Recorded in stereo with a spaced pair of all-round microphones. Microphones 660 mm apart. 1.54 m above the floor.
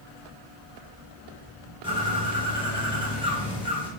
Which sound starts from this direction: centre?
A bird, at 1.8 s.